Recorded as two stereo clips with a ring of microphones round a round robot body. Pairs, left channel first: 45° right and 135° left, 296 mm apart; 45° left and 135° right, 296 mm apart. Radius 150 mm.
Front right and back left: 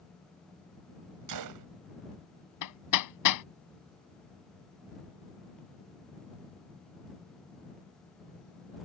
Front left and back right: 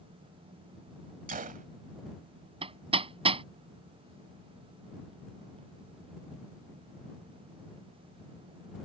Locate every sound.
1.3 s a gunshot: 160° left
2.6 s hammering: 65° right